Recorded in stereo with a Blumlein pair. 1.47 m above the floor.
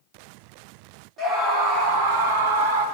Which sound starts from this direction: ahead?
A scream, at 1.2 s.